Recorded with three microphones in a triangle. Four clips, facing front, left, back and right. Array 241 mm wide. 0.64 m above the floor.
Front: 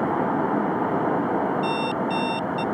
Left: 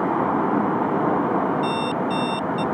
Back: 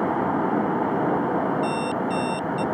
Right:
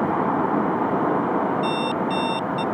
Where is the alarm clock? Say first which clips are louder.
Even, even; 65° right.